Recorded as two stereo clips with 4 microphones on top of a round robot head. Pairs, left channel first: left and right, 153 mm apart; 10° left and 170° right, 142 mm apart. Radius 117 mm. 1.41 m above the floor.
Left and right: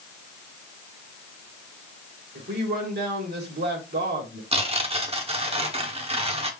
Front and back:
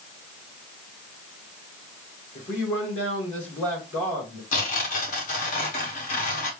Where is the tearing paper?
35° right, 1.1 m.